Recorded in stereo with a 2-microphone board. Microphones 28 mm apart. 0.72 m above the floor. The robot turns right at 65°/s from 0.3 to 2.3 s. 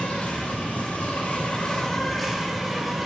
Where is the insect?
55° left, 1.3 m; by 3.1 s 175° right, 1.3 m.